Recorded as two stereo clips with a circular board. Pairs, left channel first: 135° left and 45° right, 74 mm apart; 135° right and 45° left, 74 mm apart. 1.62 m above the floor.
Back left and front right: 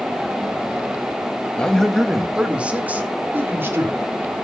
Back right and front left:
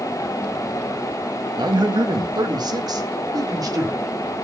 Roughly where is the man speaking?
Ahead left.